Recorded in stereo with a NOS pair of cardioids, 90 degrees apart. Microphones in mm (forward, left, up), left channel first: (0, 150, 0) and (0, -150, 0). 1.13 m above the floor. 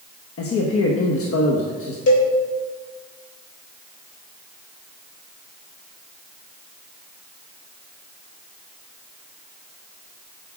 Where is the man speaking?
50° left, 1.2 m.